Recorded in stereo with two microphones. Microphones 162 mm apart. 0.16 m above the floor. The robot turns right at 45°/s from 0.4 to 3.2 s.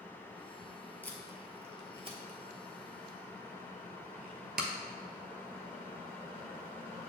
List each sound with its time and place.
1.0 s tape being pulled: 10° left (ahead or behind), 0.8 m; by 4.7 s 75° right (ahead or behind), 0.8 m